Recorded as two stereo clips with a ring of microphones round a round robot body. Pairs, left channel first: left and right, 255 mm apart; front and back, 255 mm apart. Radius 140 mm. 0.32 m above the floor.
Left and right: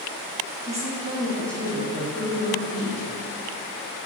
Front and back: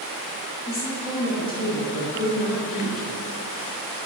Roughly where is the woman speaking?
Ahead right.